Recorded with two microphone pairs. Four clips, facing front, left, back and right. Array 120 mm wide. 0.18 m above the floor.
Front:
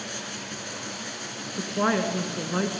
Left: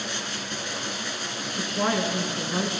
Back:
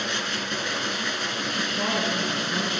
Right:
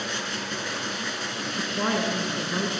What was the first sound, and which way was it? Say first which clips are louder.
Running water: right 2 dB, back 7 dB; straight behind.